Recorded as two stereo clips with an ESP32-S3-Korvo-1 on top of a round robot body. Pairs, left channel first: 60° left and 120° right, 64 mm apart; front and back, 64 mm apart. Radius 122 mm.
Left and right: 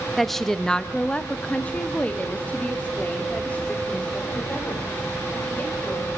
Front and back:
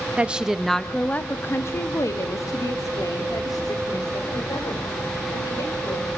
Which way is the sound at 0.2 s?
145° left.